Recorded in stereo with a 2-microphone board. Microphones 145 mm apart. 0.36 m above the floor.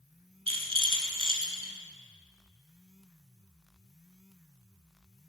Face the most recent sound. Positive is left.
turn(degrees=-40)  # may be behind; listen again after turning